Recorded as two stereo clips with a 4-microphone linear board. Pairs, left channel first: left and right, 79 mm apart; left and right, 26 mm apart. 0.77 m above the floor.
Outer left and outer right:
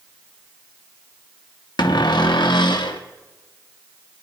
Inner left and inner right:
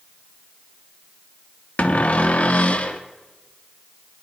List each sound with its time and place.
1.8 s a cupboard door: 70° left (ahead or behind), 1.0 m